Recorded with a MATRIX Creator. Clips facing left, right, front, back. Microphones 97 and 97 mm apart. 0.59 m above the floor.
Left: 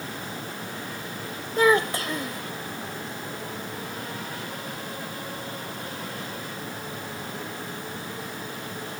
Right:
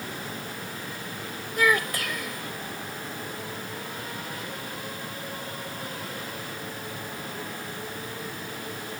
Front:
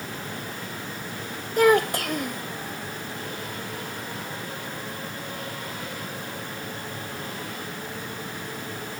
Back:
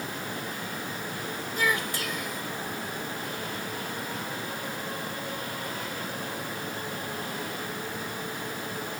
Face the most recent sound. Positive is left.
turn(degrees=30)